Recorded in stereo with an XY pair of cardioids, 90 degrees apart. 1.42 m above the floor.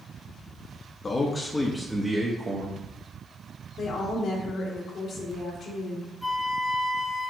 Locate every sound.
1.0 s a man speaking: 40° left, 0.7 m; by 3.7 s 60° right, 1.2 m
3.8 s a woman speaking: 70° left, 1.5 m
6.2 s a flute: 10° left, 1.2 m